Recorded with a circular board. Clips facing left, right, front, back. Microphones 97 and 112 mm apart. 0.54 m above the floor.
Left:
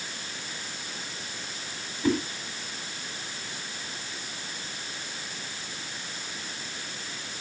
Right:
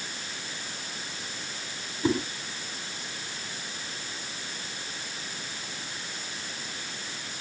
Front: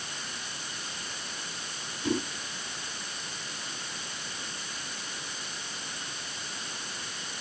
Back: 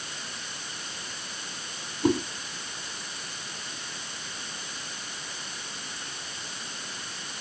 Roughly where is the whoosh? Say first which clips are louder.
Left 1 dB, back 6 dB; behind.